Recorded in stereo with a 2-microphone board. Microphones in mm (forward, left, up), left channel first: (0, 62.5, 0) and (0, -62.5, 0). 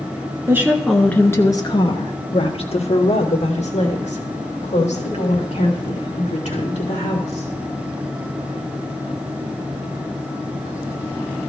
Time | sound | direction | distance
0.5 | a woman speaking | 20° right (ahead or behind) | 1.1 m